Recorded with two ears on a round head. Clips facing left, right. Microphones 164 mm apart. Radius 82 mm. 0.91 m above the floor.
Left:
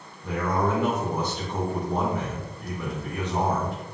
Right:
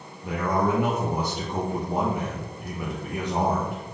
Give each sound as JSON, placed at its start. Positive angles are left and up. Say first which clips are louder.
{"t": 0.2, "sound": "a man speaking", "louder": "right 1 dB", "side_deg": -10, "distance_m": 0.6}